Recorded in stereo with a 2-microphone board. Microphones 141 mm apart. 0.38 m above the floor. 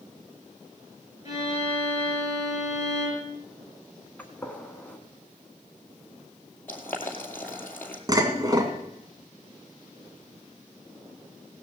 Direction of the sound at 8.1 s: 30° right (ahead or behind).